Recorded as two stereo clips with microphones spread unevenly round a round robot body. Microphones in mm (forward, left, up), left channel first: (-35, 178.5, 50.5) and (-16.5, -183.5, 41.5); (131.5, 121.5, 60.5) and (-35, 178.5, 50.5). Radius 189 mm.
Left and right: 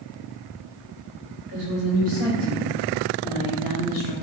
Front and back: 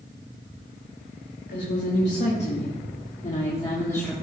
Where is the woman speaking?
30° right, 3 m; by 4.1 s 65° left, 2 m.